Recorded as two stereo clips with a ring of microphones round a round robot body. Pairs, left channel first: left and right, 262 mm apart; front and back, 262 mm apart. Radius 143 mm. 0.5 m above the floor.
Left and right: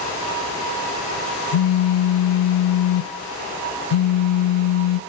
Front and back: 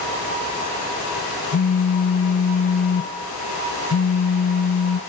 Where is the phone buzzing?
60° left, 0.5 m.